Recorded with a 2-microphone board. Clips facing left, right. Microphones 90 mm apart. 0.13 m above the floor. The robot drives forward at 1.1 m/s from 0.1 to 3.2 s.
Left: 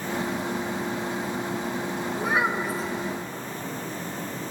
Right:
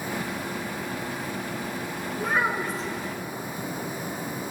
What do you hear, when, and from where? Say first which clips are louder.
2.2 s a child speaking: even; 5° left (ahead or behind), 0.6 m